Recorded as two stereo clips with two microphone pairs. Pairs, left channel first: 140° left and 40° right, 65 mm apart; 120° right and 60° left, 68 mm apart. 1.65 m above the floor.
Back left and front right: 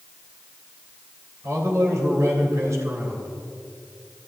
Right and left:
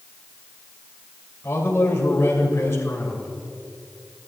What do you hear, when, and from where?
1.4 s a man speaking: 75° right, 3 m